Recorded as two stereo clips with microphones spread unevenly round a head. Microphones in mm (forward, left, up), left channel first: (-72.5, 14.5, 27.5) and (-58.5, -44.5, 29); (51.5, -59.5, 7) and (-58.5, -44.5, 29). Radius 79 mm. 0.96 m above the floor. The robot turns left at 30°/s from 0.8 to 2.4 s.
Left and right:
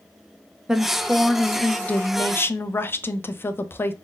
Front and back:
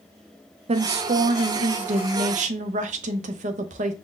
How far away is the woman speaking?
About 0.6 m.